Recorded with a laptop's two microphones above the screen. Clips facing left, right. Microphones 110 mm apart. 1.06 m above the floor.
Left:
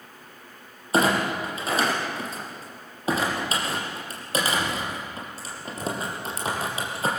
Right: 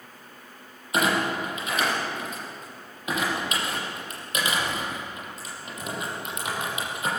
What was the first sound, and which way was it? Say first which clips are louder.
A clunk: left 2 dB; 30° left (ahead or behind).